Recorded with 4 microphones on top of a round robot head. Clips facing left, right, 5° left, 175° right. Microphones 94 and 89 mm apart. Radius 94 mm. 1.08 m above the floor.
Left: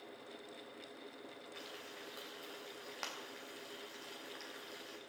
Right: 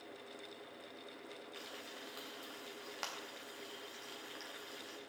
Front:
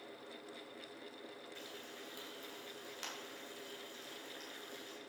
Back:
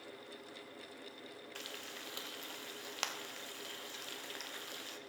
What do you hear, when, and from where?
1.6 s frying: straight behind, 0.8 m